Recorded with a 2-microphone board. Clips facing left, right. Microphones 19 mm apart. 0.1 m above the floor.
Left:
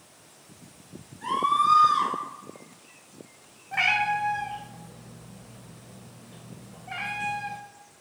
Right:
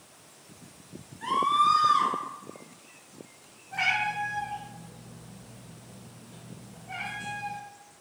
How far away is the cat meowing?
About 0.9 m.